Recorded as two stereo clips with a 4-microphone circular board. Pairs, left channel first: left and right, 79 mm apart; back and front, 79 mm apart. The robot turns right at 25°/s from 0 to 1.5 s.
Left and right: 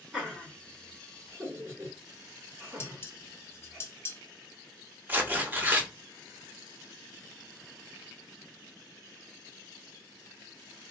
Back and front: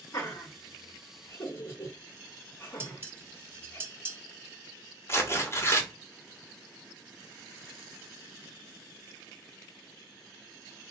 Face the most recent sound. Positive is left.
turn(degrees=-145)